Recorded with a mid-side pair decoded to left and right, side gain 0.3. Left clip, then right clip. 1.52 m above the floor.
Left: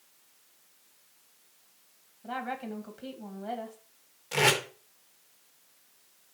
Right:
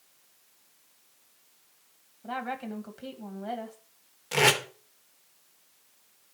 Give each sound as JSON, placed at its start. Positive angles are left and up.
{"t": 2.2, "sound": "a woman speaking", "azimuth_deg": -35, "distance_m": 1.6}
{"t": 4.3, "sound": "tape being pulled", "azimuth_deg": -50, "distance_m": 1.6}